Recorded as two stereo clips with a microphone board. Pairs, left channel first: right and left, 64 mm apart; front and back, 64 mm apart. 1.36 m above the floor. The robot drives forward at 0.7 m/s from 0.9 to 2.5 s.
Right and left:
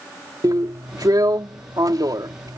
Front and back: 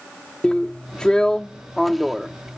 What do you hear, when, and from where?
0.4 s a drill: 75° left; by 2.6 s 95° left